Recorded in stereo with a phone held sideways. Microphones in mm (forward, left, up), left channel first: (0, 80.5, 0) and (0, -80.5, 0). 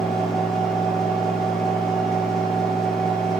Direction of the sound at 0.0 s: Centre (ahead or behind).